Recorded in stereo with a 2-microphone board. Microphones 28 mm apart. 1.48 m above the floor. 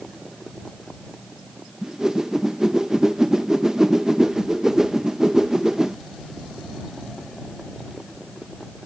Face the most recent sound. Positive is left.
turn(degrees=-25)  # may be behind; listen again after turning